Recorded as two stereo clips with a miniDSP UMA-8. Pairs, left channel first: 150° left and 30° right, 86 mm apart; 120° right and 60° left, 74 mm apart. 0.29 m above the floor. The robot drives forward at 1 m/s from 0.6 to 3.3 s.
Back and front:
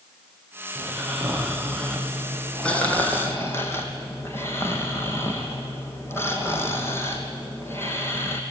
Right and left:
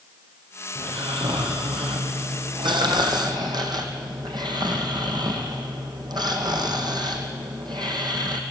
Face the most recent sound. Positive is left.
turn(degrees=90)